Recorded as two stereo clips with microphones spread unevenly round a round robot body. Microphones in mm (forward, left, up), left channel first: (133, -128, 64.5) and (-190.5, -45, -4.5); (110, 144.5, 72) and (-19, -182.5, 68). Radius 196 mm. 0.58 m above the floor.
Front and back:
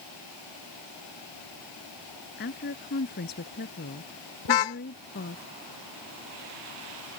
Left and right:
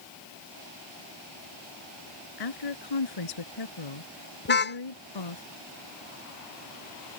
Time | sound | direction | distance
2.4 | a woman speaking | 50° left | ?
4.5 | a car horn | 5° left | ?